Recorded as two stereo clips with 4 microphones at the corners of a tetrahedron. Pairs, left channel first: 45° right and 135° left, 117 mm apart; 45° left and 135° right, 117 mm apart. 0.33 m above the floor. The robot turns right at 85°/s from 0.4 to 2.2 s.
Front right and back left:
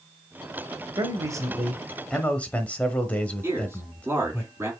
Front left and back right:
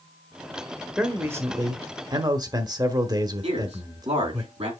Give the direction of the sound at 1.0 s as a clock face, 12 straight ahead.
7 o'clock.